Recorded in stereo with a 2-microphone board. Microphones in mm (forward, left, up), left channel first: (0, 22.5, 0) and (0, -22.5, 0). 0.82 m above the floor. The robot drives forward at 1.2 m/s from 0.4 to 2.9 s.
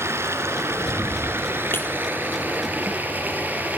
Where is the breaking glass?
60° left (ahead or behind), 3.5 m.